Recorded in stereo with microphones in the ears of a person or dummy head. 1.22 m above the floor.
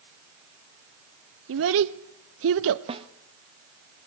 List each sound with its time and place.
1.5 s a child speaking: 70° right (ahead or behind), 0.7 m
2.9 s a snare drum: 30° right (ahead or behind), 1.0 m